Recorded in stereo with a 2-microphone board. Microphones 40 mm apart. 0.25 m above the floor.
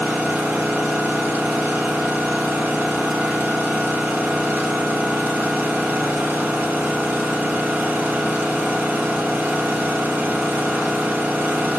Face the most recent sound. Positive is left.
turn(degrees=-50)  # may be behind; listen again after turning